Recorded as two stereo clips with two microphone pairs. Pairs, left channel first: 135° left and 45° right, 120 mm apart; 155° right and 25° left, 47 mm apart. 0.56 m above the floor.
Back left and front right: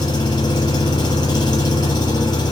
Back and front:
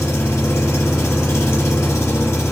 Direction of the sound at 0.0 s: 170° right.